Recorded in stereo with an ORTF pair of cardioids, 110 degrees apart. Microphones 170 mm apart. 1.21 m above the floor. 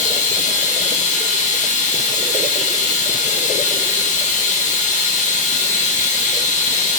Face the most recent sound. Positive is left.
turn(degrees=45)